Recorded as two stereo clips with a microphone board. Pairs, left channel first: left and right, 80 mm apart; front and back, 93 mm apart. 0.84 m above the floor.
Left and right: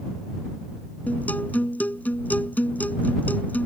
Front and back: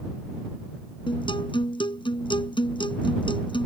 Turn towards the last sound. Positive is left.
turn(degrees=20)